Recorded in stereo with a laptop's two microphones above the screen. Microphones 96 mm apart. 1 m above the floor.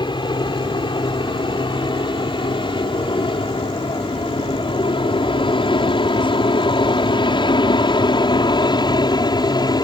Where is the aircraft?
55° left (ahead or behind); by 9.8 s 45° left (ahead or behind).